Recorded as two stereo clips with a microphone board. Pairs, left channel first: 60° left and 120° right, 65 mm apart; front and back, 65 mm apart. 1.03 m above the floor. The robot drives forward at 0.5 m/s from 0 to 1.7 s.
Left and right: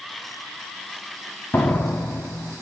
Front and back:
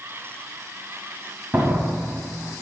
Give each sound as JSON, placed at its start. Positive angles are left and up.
{"t": 1.5, "sound": "a door slam", "azimuth_deg": 125, "distance_m": 1.3}